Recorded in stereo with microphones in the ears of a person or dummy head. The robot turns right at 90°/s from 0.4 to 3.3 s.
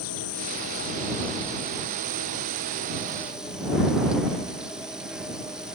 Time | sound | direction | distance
0.0 | an insect | 95° left | ?